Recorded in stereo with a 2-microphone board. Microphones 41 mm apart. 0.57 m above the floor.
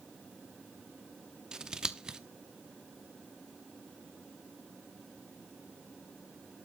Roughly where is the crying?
I don't hear crying.